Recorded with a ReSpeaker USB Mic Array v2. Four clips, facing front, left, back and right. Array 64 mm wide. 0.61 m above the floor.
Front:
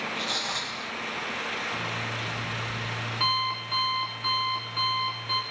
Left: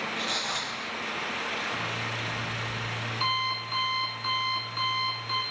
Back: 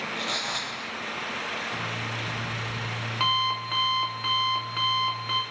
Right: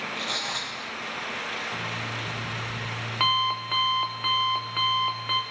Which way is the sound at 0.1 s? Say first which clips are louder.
Even, back 1 dB; 135° right.